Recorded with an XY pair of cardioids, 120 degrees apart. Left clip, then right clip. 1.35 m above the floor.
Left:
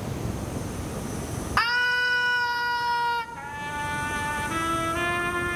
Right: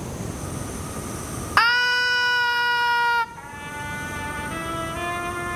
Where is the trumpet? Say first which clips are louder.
Left 2 dB; 15° left, 1.6 m.